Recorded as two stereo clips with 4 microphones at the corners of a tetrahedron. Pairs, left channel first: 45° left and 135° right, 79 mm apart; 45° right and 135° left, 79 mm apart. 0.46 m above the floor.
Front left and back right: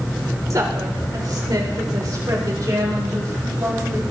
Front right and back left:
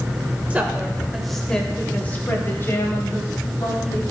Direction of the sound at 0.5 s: 160° right.